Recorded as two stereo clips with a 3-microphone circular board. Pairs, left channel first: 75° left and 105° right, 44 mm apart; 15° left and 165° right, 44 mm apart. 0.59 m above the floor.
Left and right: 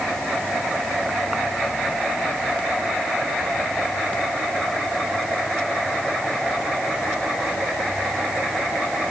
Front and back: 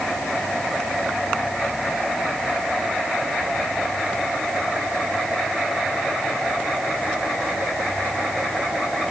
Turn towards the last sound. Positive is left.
No sound to turn to.